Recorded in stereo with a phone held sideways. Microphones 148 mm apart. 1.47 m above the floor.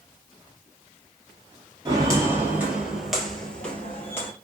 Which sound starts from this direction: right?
Footsteps, at 1.9 s.